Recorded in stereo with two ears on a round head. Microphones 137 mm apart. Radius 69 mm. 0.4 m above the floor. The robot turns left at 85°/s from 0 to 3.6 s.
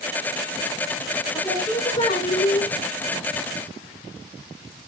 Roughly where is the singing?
Behind left.